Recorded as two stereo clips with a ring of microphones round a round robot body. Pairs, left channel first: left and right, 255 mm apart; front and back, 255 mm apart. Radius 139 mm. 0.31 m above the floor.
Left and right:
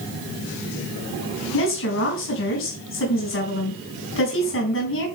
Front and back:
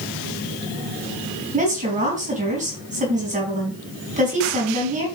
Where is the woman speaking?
120° left, 3.5 m.